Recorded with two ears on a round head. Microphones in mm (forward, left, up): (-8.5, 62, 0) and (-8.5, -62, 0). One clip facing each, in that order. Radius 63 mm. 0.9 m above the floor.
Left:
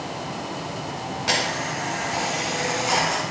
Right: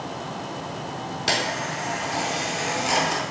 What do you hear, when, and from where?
1.3 s a camera shutter: 35° right (ahead or behind), 4 m